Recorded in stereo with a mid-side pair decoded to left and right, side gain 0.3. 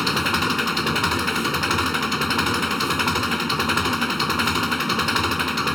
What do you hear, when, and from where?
0.0 s an engine running: 10° left